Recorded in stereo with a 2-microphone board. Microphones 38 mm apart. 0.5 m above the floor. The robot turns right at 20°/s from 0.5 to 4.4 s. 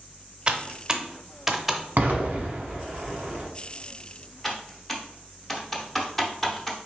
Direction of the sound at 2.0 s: 65° right (ahead or behind).